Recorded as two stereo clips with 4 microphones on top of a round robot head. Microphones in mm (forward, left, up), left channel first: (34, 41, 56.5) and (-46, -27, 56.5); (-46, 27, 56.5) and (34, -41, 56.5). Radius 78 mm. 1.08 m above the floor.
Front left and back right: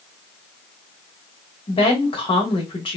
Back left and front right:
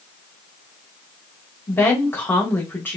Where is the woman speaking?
70° left, 1.8 m.